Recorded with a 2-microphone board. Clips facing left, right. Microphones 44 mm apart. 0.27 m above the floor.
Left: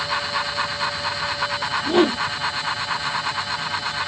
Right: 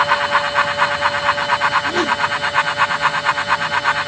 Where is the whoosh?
20° left (ahead or behind).